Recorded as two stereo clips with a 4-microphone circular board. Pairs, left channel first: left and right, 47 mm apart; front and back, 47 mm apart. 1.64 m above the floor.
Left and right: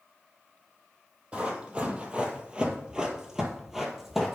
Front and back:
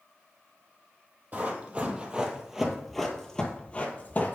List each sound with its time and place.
1.3 s running footsteps: 145° right, 2.5 m; by 4.4 s straight ahead, 2 m